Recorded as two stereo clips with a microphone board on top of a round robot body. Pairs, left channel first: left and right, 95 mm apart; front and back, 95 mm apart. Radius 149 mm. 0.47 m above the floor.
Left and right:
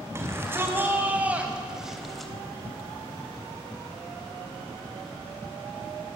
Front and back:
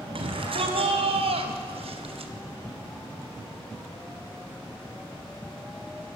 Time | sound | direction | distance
0.1 | a shout | 155° right | 4 m